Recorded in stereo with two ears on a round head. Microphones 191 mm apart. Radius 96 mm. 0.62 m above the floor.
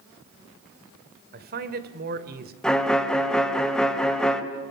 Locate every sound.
1.3 s a man speaking: 45° right (ahead or behind), 2 m
2.6 s a violin: 5° left (ahead or behind), 2.0 m